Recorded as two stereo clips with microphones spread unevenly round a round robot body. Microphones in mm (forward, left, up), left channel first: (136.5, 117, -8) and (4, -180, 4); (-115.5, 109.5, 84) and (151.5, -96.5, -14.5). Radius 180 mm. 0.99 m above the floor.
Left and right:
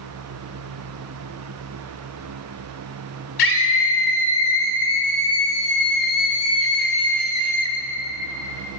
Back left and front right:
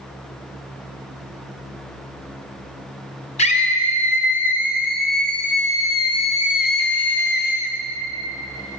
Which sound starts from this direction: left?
A scream, at 3.4 s.